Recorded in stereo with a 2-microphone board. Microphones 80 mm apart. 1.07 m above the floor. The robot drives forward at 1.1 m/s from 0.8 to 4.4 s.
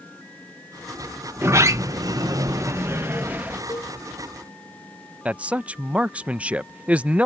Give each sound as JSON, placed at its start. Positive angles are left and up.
{"t": 1.4, "sound": "a sliding door", "side_deg": -30}
{"t": 3.7, "sound": "a cowbell", "side_deg": 40}
{"t": 5.2, "sound": "a man speaking", "side_deg": -15}